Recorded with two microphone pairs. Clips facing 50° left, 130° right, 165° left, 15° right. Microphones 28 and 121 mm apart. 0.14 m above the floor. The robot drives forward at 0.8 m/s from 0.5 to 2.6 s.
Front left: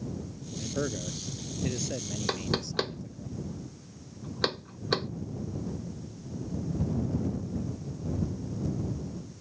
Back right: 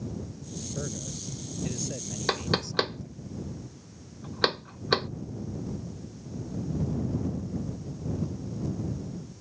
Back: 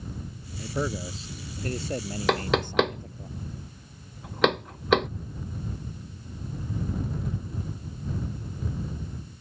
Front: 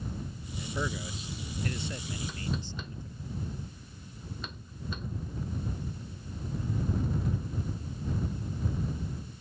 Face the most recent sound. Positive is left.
turn(degrees=155)